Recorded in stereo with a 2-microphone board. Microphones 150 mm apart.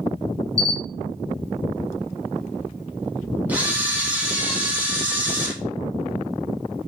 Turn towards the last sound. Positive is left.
turn(degrees=-10)  # may be behind; listen again after turning